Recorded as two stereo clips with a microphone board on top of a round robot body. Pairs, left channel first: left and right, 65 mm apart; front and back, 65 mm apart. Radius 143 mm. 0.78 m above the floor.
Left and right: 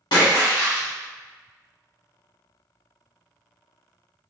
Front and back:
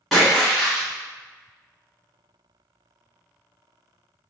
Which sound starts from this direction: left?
A splash, at 0.1 s.